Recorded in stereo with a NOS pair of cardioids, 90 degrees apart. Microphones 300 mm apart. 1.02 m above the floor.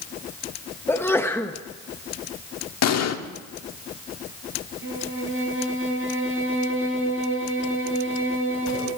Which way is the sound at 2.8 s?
60° left.